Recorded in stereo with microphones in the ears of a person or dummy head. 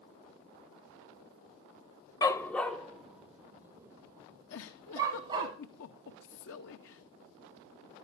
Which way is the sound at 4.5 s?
70° left (ahead or behind).